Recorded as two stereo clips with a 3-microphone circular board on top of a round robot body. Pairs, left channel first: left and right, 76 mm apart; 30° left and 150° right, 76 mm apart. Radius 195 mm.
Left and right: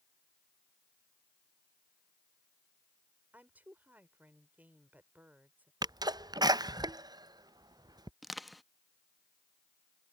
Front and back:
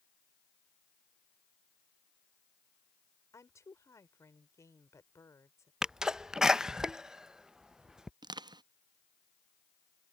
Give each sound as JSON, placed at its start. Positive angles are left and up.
{"t": 3.3, "sound": "a woman speaking", "azimuth_deg": -20}
{"t": 5.8, "sound": "a sneeze", "azimuth_deg": -70}
{"t": 8.2, "sound": "crushing", "azimuth_deg": 180}